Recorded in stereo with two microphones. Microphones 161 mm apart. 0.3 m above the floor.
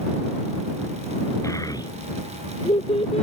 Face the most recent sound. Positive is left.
turn(degrees=40)  # may be behind; listen again after turning